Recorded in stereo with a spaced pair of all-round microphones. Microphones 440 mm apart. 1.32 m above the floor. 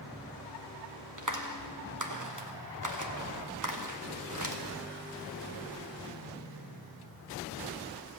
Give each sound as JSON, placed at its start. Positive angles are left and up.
{"t": 1.2, "sound": "a clap", "side_deg": -40, "distance_m": 1.2}